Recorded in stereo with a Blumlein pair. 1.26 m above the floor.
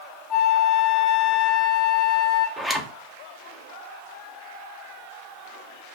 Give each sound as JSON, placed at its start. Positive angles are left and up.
{"t": 0.3, "sound": "a flute", "azimuth_deg": 25, "distance_m": 1.0}
{"t": 2.6, "sound": "a zipper", "azimuth_deg": -5, "distance_m": 0.8}